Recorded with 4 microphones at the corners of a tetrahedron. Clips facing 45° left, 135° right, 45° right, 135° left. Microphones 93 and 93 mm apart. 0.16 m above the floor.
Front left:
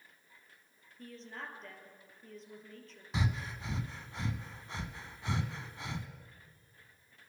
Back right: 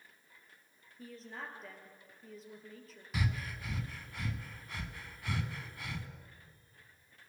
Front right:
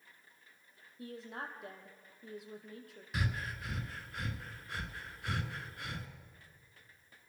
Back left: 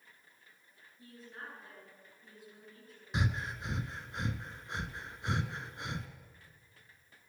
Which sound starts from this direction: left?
Breathing, at 3.1 s.